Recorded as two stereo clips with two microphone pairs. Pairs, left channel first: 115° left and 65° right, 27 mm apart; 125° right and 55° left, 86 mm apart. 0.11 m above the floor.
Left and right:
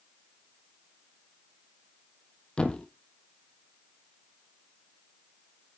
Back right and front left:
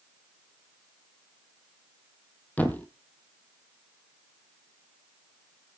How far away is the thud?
About 1.1 m.